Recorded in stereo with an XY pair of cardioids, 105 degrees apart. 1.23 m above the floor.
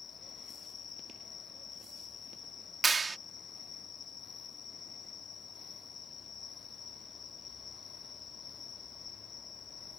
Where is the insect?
55° left.